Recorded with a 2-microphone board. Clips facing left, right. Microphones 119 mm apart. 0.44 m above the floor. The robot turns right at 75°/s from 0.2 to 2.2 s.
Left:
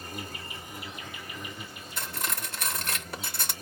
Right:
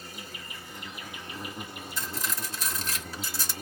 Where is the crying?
No crying in this recording.